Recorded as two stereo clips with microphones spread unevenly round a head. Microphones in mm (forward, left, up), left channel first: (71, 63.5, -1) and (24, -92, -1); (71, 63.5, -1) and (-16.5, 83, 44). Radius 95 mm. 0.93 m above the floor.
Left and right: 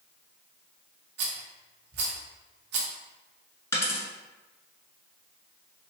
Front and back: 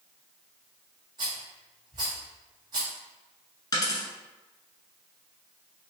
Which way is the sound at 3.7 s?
45° left.